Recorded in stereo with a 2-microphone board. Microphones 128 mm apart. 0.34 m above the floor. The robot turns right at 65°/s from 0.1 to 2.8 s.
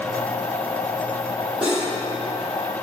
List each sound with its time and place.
1.6 s cutlery clinking: 45° right (ahead or behind), 1.8 m; by 1.9 s 25° right (ahead or behind), 1.8 m